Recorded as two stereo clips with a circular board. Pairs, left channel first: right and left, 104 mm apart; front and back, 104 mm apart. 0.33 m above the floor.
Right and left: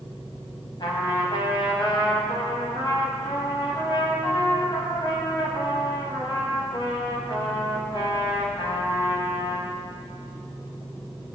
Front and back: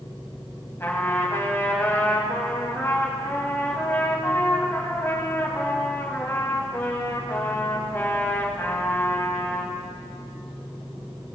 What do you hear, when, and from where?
0.8 s a trumpet: 65° right, 1.9 m